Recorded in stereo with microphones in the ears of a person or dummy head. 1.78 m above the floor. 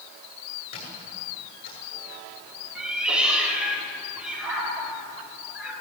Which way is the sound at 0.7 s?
55° left (ahead or behind).